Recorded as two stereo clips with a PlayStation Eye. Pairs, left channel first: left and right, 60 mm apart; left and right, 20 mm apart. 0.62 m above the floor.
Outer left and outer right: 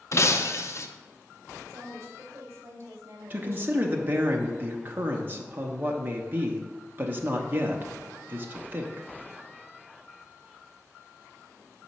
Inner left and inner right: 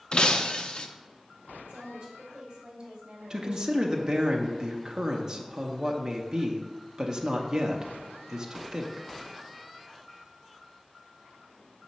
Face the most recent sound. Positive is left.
turn(degrees=-35)  # may be behind; listen again after turning